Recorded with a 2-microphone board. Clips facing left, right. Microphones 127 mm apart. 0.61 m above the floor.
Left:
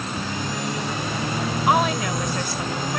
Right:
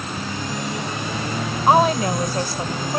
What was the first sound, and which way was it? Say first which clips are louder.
A woman speaking: right 5 dB; 35° right (ahead or behind).